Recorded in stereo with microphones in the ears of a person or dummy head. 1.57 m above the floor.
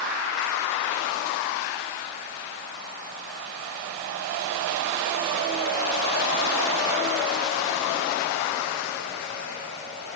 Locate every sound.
Only background noise.